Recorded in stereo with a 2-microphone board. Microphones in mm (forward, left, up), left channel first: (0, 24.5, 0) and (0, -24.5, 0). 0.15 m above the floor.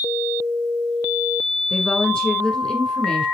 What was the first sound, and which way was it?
A woman speaking, 10° left (ahead or behind).